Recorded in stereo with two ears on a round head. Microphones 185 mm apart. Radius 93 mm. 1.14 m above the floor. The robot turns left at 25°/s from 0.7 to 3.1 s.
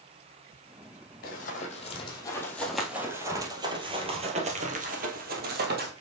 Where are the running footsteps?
50° left (ahead or behind), 2 m; by 5.9 s 55° right (ahead or behind), 1.8 m.